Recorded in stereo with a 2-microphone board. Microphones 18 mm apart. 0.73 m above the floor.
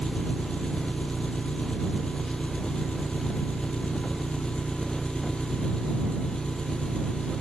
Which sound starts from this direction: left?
An engine running, at 0.0 s.